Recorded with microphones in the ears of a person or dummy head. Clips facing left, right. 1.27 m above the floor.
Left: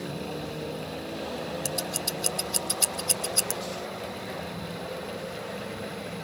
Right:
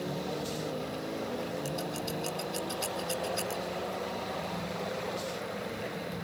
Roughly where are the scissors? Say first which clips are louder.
Left 2 dB; left.